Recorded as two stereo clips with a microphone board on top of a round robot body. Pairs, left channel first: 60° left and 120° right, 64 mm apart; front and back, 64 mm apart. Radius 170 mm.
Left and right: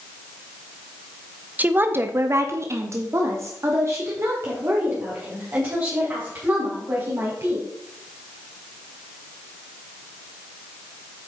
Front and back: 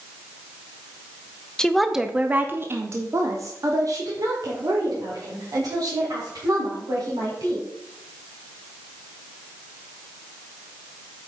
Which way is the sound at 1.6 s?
75° right.